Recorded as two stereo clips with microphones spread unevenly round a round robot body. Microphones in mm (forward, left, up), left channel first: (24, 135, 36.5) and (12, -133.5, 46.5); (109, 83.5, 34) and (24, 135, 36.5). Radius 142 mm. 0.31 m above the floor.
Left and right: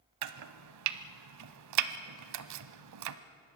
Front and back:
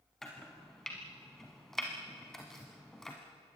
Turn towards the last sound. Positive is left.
turn(degrees=-120)